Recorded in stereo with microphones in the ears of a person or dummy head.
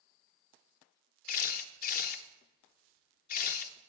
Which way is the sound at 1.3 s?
45° left (ahead or behind).